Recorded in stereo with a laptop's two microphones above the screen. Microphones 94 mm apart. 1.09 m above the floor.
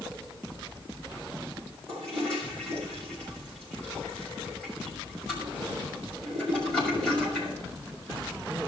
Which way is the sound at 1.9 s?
5° left (ahead or behind).